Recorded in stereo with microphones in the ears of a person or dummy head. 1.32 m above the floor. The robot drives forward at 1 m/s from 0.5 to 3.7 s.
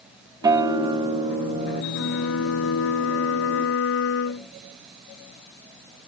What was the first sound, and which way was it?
A guitar, 25° right (ahead or behind).